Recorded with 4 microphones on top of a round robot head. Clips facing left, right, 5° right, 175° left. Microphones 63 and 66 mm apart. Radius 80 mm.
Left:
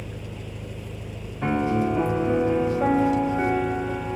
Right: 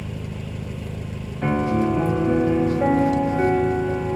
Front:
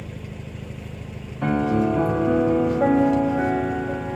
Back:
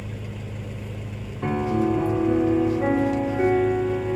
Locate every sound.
0.0 s an engine running: 100° right, 1.1 m
1.4 s a piano: straight ahead, 1.4 m